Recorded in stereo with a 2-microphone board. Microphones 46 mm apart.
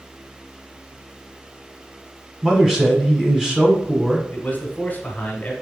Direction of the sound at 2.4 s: 15° right (ahead or behind).